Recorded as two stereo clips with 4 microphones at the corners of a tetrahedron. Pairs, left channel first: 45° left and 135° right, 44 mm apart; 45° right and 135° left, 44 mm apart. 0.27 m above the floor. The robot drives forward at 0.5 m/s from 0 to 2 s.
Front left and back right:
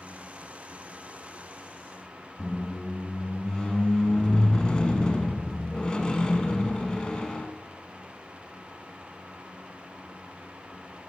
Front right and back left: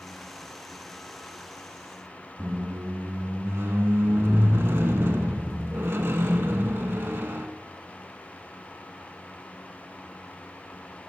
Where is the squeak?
115° left, 0.5 m.